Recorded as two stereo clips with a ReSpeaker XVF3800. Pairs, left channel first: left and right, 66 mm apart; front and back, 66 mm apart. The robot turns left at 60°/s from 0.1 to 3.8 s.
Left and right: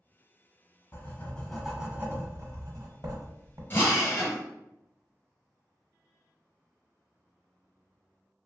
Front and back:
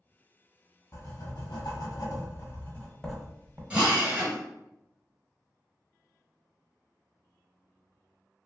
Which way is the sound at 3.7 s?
120° left.